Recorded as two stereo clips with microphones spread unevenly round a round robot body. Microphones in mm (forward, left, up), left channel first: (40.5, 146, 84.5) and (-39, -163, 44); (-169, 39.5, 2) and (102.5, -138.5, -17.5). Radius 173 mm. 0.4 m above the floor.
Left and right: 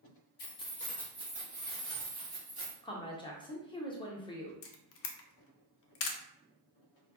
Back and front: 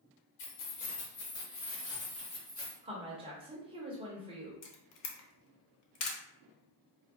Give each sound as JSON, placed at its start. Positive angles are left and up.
{"t": 0.4, "sound": "keys jangling", "azimuth_deg": 130, "distance_m": 1.0}
{"t": 2.8, "sound": "a woman speaking", "azimuth_deg": 5, "distance_m": 0.8}
{"t": 4.6, "sound": "a camera shutter", "azimuth_deg": 120, "distance_m": 0.5}